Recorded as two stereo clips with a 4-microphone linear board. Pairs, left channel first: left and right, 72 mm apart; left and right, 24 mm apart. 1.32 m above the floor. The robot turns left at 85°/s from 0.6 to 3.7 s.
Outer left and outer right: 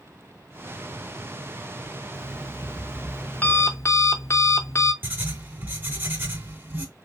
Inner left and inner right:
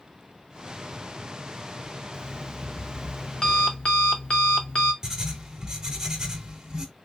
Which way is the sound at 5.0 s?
25° right (ahead or behind).